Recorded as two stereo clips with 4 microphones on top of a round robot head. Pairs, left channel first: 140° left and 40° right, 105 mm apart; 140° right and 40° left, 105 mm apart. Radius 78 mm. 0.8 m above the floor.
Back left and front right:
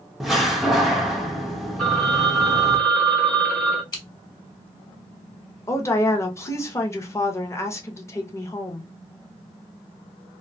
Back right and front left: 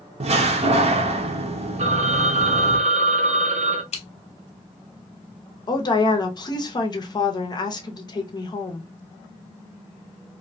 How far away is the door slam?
About 0.6 m.